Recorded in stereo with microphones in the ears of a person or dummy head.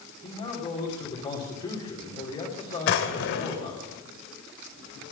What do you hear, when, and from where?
0.2 s a man speaking: 30° left (ahead or behind), 3 m
2.9 s a drawer: 65° left (ahead or behind), 1.7 m